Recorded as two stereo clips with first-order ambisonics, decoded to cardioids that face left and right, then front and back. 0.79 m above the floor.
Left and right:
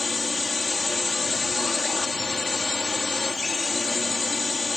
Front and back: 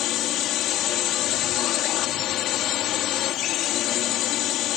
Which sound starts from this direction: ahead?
A drone, at 0.0 s.